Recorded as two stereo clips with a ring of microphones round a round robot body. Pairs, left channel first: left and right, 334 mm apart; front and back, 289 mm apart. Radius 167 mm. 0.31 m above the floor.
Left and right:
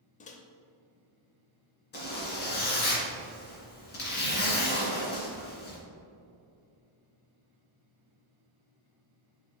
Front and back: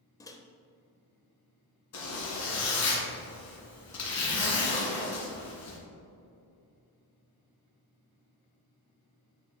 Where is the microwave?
60° left, 0.7 m.